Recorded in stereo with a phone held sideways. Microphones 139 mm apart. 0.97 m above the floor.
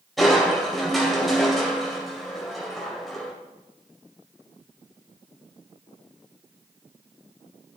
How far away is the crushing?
About 1.7 m.